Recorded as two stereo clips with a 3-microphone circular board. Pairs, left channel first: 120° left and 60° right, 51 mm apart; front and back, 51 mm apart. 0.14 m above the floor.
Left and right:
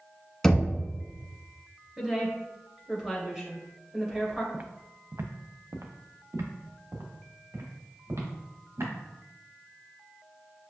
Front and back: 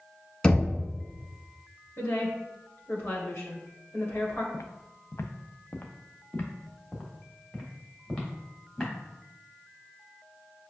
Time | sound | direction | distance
0.4 | knocking | 50° left | 0.8 m
2.0 | a woman speaking | 10° left | 1.6 m
4.5 | footsteps | straight ahead | 0.5 m